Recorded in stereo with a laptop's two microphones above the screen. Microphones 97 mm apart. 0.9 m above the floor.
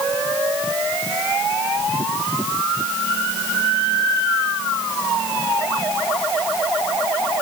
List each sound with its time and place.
Only background noise.